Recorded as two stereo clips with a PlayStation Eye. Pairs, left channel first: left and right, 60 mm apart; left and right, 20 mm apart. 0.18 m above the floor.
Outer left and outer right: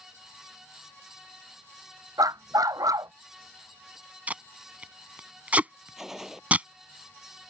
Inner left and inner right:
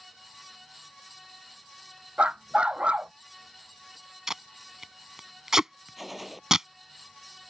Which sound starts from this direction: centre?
A gunshot, at 6.0 s.